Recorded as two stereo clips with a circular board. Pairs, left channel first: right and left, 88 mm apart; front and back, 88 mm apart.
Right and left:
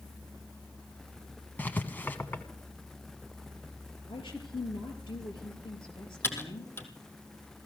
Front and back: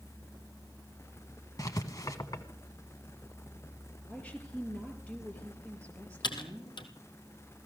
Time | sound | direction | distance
1.6 | writing | 30° right | 1.3 m
4.1 | a woman speaking | 75° right | 5 m
6.2 | typing on a keyboard | 25° right | 1.9 m